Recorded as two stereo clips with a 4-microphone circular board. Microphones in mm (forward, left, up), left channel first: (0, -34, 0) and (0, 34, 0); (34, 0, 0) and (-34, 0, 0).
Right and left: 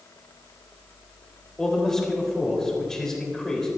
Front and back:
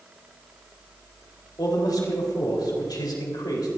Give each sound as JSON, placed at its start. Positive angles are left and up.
{"t": 1.6, "sound": "a man speaking", "azimuth_deg": -10, "distance_m": 4.0}